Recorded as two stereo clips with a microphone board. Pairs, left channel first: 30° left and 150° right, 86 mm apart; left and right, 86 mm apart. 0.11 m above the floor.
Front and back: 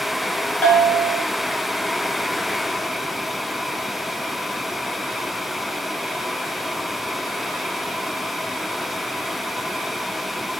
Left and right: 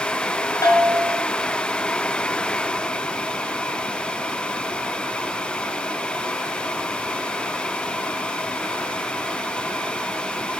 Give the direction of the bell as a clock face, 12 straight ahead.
9 o'clock.